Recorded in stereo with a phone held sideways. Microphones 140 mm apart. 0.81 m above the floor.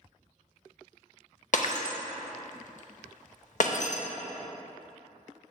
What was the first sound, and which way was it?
Breaking glass, 60° left (ahead or behind).